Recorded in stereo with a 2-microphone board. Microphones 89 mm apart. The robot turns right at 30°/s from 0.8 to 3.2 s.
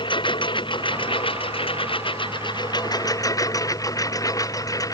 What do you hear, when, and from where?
0.0 s a lawn mower: 65° left; by 4.9 s 140° left